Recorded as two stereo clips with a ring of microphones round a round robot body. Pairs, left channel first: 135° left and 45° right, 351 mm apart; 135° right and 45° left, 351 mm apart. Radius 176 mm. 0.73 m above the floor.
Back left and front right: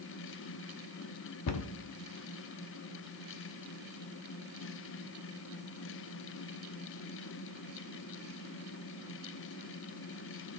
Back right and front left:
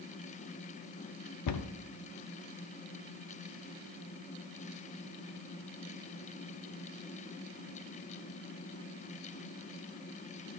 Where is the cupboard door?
175° right, 0.7 m.